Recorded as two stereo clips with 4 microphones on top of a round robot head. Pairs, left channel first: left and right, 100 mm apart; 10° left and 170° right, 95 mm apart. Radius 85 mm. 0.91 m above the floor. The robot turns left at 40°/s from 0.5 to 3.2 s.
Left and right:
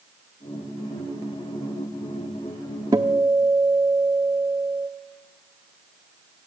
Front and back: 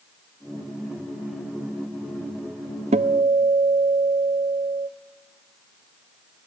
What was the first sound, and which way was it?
A guitar, 155° right.